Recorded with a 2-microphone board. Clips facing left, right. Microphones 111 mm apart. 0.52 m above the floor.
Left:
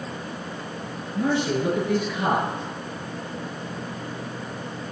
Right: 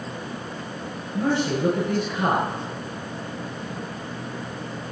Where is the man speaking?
45° right (ahead or behind), 7 m.